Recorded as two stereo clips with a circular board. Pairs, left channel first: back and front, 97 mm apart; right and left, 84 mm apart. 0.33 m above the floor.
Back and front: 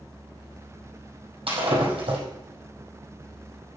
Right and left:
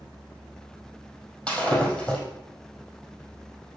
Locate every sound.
1.5 s breaking glass: 10° right, 4.5 m